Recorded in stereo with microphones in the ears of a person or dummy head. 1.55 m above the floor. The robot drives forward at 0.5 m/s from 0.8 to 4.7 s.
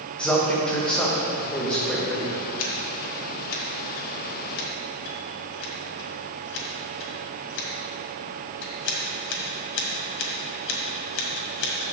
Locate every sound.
0.2 s a man speaking: 10° left (ahead or behind), 1.2 m; by 2.3 s 5° left (ahead or behind), 1.9 m
2.6 s scissors: 70° left (ahead or behind), 1.8 m; by 11.9 s 75° left (ahead or behind), 1.8 m